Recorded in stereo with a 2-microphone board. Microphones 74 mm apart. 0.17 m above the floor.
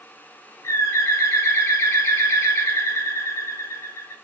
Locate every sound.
0.6 s a bird: 40° left (ahead or behind), 3 m